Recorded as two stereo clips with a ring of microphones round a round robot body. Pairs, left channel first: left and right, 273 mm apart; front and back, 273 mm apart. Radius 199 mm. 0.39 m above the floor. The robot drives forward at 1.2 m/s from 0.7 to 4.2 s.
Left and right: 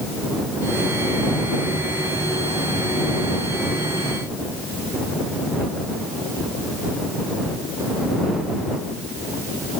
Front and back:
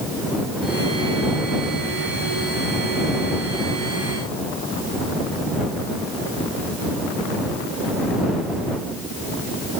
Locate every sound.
Only background noise.